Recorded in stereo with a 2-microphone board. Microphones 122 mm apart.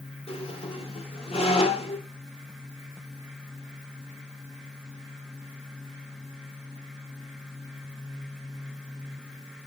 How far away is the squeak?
About 2 m.